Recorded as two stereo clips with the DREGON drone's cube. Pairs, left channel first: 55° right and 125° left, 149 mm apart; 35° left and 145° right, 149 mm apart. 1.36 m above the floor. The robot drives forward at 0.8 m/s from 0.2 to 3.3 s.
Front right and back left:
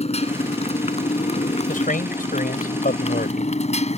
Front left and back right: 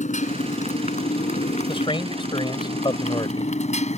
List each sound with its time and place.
0.0 s a motorcycle: 10° right
1.7 s a man speaking: 25° right; by 3.5 s 30° right